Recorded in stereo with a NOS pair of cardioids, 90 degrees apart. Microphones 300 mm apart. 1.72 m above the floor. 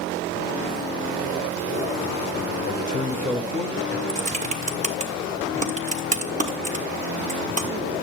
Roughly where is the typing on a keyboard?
Ahead right.